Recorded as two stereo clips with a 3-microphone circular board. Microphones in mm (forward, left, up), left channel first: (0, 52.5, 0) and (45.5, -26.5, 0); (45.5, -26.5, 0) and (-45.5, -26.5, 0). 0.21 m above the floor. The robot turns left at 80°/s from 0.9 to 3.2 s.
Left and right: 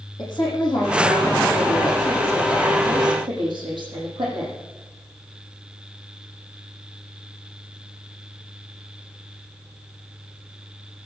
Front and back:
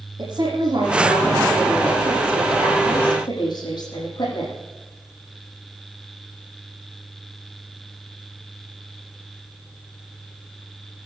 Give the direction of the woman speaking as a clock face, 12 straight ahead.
7 o'clock.